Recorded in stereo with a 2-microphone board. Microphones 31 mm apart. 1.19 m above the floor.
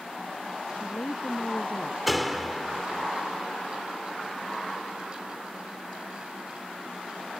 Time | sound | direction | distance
0.7 | a woman speaking | 75° left (ahead or behind) | ?
2.1 | a door slam | centre (ahead or behind) | ?